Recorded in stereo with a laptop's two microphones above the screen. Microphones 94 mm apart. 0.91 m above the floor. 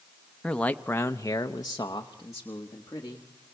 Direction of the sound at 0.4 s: 10° left (ahead or behind).